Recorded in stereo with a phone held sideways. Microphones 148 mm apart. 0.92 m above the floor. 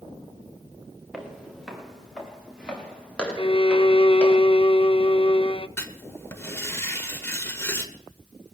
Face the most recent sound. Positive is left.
turn(degrees=20)  # may be behind; listen again after turning